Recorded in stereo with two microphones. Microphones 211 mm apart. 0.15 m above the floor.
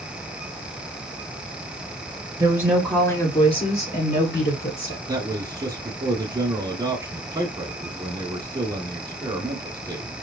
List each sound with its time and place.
2.4 s a woman speaking: 20° right (ahead or behind), 1.9 m; by 5.0 s 60° left (ahead or behind), 3.5 m
5.1 s a man speaking: 20° right (ahead or behind), 1.0 m